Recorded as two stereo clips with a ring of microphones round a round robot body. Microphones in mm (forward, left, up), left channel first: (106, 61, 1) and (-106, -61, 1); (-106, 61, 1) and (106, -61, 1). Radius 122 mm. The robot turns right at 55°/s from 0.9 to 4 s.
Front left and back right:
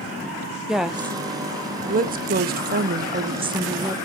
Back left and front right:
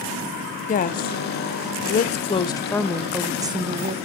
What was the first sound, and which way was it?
A woman speaking, 125° left.